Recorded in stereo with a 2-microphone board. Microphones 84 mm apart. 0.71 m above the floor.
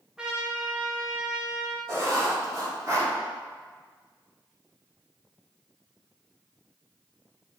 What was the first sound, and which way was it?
A trumpet, 10° right (ahead or behind).